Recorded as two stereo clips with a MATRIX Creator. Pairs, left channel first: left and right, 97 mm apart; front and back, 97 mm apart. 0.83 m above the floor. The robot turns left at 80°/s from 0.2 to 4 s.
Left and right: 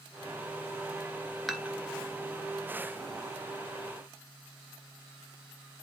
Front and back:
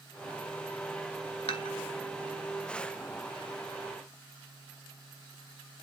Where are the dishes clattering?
Straight ahead, 1.9 m; by 1.8 s 20° right, 1.9 m.